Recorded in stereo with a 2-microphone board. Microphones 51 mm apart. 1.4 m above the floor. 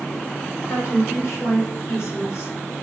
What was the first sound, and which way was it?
A woman speaking, 75° left (ahead or behind).